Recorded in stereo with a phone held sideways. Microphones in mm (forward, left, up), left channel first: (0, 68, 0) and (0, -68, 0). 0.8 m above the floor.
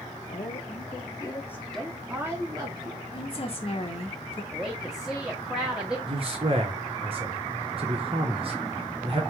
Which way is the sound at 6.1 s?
40° right (ahead or behind).